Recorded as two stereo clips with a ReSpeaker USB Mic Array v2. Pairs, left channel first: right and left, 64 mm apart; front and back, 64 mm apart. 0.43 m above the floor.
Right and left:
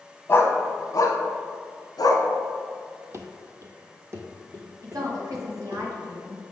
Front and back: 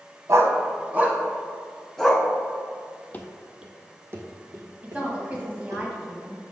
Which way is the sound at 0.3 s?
145° right.